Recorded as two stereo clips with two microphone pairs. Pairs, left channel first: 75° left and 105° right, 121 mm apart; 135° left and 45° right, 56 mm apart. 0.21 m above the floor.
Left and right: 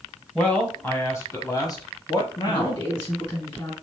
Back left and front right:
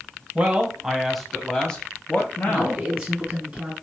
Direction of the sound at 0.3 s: Straight ahead.